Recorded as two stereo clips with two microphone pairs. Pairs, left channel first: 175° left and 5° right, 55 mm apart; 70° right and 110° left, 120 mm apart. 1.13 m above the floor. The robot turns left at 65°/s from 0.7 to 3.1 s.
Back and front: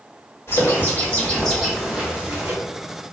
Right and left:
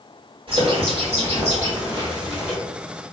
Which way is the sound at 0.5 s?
145° left.